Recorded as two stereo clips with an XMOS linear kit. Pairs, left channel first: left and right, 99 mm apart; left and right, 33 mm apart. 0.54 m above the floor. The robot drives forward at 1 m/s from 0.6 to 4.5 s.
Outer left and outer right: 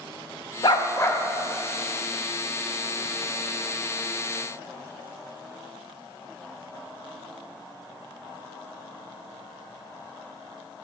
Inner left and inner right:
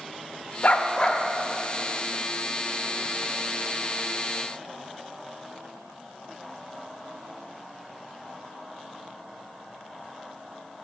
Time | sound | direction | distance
0.6 | a dog barking | 60° left (ahead or behind) | 0.5 m